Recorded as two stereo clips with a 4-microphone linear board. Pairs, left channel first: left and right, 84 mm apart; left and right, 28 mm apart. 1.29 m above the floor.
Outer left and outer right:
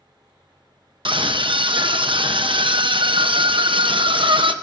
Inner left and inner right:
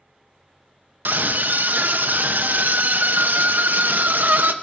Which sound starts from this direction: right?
A scream, at 1.1 s.